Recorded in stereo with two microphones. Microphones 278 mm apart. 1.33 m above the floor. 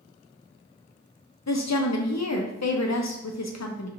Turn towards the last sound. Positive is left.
turn(degrees=70)  # may be behind; listen again after turning